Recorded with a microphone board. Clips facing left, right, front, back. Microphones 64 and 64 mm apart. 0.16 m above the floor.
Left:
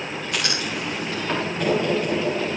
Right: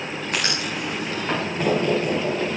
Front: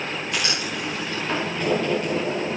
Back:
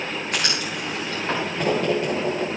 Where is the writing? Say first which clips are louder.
Right 1 dB, even; 135° right, 7.5 m.